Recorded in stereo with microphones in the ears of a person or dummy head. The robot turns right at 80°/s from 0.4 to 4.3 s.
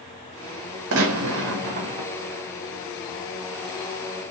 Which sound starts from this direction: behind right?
A gunshot, at 0.9 s.